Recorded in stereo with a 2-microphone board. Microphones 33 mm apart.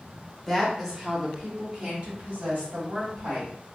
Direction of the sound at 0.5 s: Centre (ahead or behind).